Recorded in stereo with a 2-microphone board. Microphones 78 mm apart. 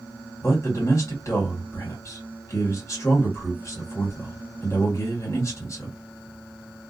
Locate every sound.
0.4 s a man speaking: 40° left (ahead or behind), 1.5 m